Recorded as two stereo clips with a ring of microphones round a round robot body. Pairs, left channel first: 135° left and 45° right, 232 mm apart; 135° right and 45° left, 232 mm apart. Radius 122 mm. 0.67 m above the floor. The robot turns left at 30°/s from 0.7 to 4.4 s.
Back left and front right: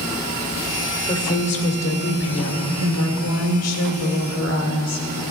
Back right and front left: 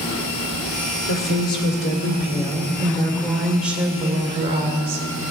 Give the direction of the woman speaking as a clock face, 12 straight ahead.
5 o'clock.